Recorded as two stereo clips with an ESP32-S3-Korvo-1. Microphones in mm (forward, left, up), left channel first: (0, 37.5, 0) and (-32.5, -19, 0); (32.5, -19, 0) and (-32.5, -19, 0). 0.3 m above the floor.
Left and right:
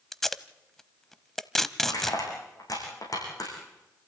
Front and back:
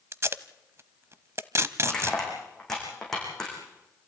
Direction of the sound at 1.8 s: 80° left.